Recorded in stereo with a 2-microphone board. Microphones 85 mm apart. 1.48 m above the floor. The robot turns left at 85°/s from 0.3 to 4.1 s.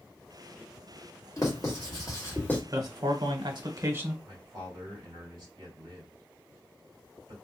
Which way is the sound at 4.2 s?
55° right (ahead or behind).